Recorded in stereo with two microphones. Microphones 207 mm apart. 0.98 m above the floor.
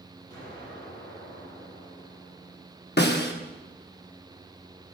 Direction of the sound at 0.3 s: 20° left (ahead or behind).